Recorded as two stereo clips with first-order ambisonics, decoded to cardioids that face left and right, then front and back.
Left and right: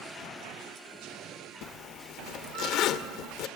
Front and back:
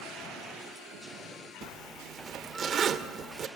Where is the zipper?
120° left, 1.1 m.